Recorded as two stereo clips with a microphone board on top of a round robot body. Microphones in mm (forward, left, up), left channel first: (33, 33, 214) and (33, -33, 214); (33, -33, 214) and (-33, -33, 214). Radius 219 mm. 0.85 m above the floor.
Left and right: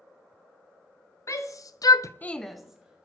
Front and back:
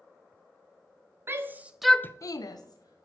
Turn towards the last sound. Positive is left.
turn(degrees=-15)